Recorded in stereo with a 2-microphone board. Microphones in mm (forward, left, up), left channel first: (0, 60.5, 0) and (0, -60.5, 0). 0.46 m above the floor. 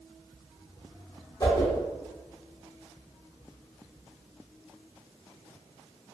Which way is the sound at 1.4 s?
30° left (ahead or behind).